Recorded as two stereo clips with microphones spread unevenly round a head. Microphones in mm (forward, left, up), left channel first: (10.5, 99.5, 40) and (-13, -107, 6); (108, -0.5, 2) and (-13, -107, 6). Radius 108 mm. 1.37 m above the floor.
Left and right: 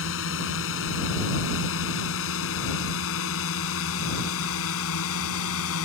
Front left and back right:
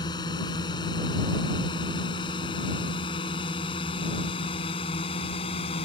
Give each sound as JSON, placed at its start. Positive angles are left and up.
{"t": 0.0, "sound": "a drone", "azimuth_deg": 115}